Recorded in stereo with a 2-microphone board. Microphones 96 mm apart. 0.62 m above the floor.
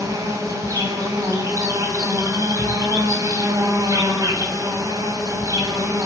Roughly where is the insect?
Right.